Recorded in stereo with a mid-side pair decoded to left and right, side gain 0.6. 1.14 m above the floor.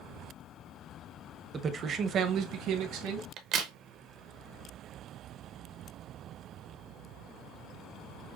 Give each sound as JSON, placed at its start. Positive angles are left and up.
{"t": 1.5, "sound": "a man speaking", "azimuth_deg": -30, "distance_m": 0.7}
{"t": 3.4, "sound": "a crack", "azimuth_deg": -60, "distance_m": 0.9}